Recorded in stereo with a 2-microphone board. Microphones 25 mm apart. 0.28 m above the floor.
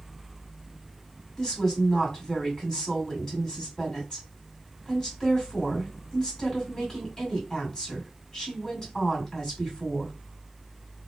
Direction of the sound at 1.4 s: 30° left (ahead or behind).